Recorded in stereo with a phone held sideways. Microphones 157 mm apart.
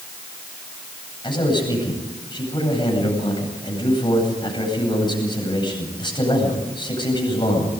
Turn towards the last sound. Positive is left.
turn(degrees=30)  # may be behind; listen again after turning